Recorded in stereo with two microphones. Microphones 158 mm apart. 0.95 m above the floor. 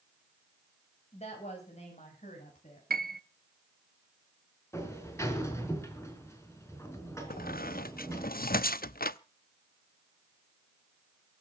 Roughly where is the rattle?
I don't hear a rattle.